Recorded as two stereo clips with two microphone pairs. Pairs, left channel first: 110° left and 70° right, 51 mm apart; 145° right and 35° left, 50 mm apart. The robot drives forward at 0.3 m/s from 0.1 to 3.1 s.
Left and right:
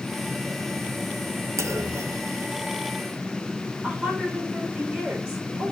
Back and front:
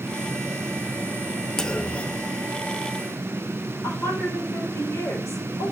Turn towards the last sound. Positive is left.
turn(degrees=-140)